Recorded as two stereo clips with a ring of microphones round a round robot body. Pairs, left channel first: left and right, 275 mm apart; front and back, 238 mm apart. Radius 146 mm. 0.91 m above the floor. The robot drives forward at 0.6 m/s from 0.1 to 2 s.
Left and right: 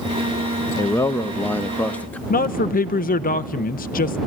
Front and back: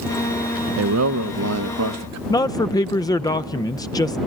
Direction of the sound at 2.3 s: 65° left.